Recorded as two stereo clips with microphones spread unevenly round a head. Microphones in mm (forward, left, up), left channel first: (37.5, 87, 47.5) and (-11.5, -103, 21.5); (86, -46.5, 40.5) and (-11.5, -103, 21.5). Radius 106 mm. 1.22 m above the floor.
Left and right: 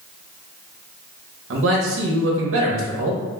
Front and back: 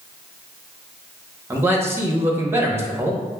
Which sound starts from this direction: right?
A man speaking, at 1.5 s.